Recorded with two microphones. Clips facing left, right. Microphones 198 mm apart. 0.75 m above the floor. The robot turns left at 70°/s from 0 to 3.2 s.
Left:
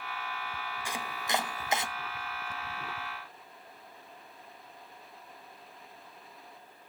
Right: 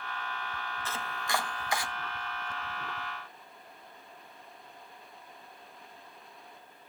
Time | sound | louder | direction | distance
0.8 | chopping | left 1 dB | 15° left (ahead or behind) | 0.9 m